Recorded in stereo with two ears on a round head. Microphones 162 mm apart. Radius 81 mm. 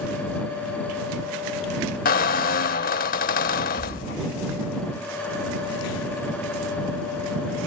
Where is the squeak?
50° left (ahead or behind).